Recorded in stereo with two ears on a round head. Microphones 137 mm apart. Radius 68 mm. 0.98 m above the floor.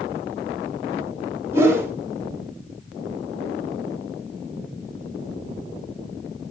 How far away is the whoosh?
About 1.8 m.